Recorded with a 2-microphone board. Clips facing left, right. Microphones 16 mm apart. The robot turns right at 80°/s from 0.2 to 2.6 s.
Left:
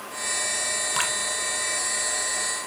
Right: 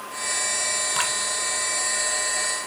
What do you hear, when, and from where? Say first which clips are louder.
0.9 s dripping: even; 5° left (ahead or behind), 0.7 m; by 1.1 s 5° right (ahead or behind), 0.7 m